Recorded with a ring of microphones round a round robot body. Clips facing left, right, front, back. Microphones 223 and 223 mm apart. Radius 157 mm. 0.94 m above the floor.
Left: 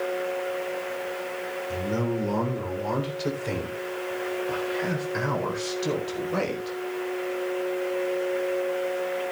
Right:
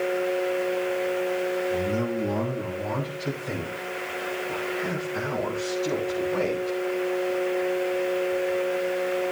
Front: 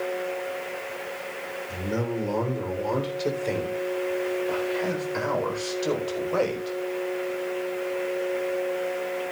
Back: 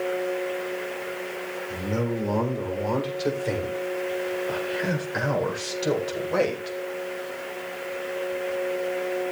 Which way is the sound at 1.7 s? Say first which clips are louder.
Right 2 dB, back 1 dB; 80° left.